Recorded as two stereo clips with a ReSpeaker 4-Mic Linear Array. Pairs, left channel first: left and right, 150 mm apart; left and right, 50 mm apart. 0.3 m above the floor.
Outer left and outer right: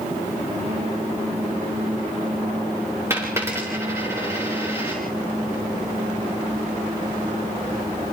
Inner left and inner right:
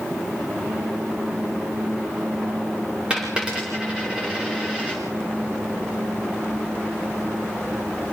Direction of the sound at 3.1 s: 15° right (ahead or behind).